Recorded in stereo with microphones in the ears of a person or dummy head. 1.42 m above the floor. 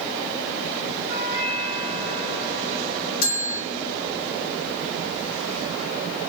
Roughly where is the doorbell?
Left.